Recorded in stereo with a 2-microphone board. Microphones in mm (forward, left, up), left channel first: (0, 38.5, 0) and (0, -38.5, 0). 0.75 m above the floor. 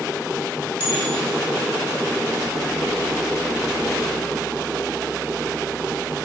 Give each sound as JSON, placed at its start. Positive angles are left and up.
{"t": 0.8, "sound": "a bell", "side_deg": -25, "distance_m": 2.5}